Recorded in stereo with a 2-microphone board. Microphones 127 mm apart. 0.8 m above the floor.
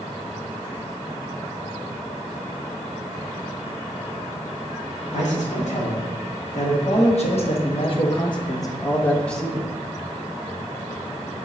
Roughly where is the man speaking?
Left.